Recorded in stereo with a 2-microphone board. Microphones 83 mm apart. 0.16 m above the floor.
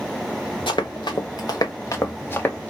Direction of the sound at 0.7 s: 75° left (ahead or behind).